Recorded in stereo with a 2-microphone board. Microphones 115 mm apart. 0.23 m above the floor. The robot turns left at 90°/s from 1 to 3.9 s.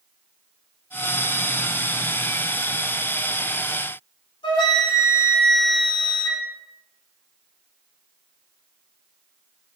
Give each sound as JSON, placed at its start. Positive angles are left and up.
{"t": 4.4, "sound": "a flute", "side_deg": 55, "distance_m": 1.4}